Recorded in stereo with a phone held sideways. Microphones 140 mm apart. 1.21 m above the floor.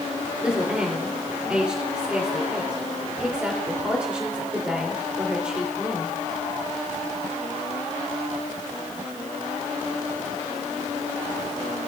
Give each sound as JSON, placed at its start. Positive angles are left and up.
{"t": 0.4, "sound": "a woman speaking", "side_deg": -10, "distance_m": 3.0}